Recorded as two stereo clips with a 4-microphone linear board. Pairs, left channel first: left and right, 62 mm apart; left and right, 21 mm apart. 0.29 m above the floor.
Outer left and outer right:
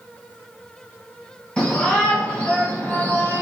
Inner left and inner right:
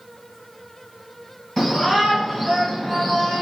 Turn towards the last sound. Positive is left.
turn(degrees=35)  # may be behind; listen again after turning